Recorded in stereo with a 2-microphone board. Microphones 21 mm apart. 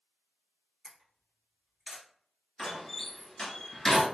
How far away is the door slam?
About 1.2 m.